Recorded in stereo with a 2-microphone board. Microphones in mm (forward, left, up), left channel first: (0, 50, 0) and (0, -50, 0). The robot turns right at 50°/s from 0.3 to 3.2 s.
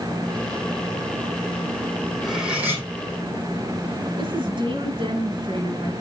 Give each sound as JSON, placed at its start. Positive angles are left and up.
{"t": 2.2, "sound": "cutlery clinking", "azimuth_deg": 175, "distance_m": 4.5}
{"t": 4.2, "sound": "a woman speaking", "side_deg": -55, "distance_m": 2.5}